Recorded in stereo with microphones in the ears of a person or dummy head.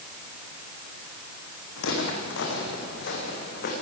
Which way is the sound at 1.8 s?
75° left (ahead or behind).